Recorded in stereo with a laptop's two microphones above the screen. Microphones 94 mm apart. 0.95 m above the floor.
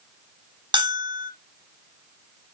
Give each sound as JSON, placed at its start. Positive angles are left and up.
{"t": 0.7, "sound": "a bell", "side_deg": -55, "distance_m": 1.2}